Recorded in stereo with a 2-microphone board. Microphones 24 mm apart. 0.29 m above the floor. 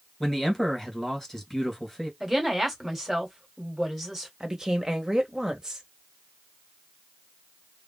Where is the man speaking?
15° left (ahead or behind), 1.9 m.